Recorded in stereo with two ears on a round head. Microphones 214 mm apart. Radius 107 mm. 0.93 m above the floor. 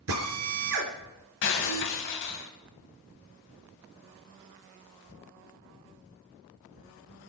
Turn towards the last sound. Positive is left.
turn(degrees=55)  # may be behind; listen again after turning